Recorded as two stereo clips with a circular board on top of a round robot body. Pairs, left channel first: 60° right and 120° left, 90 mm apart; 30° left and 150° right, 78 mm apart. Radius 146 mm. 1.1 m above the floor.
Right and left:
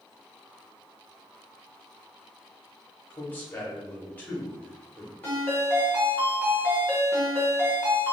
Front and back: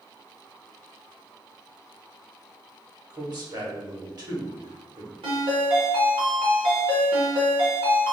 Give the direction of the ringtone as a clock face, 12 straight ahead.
4 o'clock.